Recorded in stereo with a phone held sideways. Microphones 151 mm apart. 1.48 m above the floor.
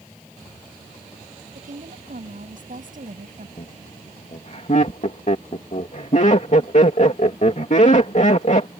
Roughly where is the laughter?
Left.